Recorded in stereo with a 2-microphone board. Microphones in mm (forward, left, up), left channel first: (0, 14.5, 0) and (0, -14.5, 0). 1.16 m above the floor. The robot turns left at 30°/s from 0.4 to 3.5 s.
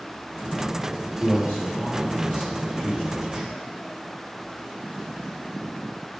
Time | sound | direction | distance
1.2 | a man speaking | 65° left (ahead or behind) | 2.5 m